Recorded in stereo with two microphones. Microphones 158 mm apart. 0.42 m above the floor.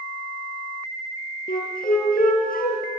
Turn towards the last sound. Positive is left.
turn(degrees=60)  # may be behind; listen again after turning